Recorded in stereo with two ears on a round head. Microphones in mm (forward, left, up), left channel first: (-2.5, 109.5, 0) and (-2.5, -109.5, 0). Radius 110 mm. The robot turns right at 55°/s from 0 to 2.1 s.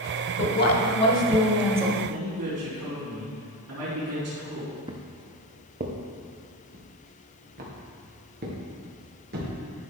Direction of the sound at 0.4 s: 115° left.